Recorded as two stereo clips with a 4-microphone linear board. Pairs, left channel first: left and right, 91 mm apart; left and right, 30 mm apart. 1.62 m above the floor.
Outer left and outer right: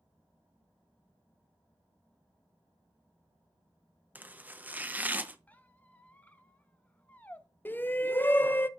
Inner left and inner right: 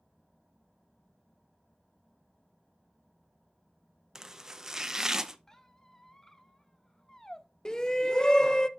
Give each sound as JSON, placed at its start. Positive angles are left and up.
{"t": 4.2, "sound": "chopping", "side_deg": -20, "distance_m": 0.6}
{"t": 5.5, "sound": "a squeak", "side_deg": 20, "distance_m": 0.7}
{"t": 7.7, "sound": "a shout", "side_deg": 25, "distance_m": 0.6}